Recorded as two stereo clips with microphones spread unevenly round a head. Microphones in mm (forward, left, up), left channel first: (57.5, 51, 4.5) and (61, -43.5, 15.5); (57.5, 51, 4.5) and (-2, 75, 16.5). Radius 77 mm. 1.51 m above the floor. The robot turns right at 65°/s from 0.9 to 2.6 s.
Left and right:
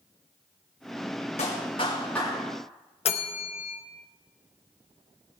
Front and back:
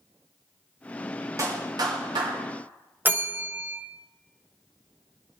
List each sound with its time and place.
1.4 s a clap: 125° left, 3 m; by 2.4 s 170° right, 3 m
3.0 s a bell: 105° left, 1.2 m